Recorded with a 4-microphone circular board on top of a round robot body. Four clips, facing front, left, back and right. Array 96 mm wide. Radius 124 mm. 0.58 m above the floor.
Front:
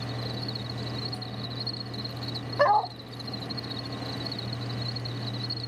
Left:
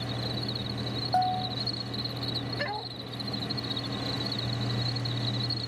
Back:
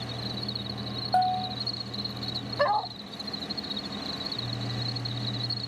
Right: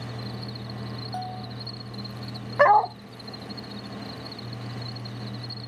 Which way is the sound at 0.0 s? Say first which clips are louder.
Left 2 dB, front 1 dB; 60° left.